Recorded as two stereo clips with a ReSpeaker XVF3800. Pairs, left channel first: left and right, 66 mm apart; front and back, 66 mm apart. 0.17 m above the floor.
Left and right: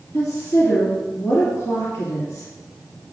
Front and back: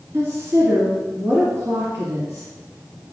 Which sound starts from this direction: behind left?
A woman speaking, at 0.1 s.